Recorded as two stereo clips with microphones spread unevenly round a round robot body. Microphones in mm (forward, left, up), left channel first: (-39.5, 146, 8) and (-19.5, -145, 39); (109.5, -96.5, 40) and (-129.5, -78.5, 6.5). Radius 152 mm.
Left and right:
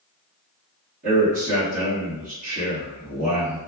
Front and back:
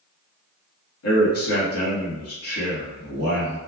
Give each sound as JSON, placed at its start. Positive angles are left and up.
{"t": 1.0, "sound": "a man speaking", "azimuth_deg": -20, "distance_m": 1.5}